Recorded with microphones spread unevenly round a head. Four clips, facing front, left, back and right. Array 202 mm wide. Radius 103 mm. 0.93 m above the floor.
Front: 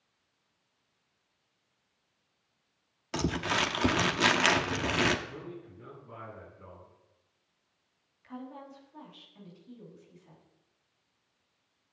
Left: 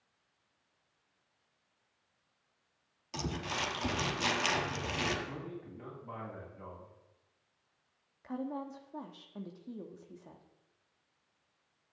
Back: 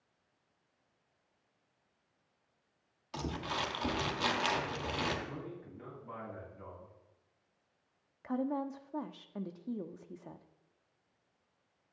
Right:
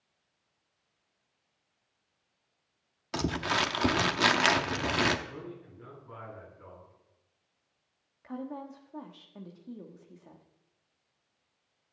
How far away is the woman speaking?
About 1.2 m.